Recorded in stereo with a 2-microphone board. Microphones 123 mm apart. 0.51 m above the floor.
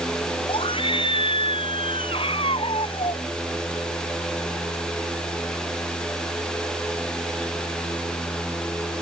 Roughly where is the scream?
Left.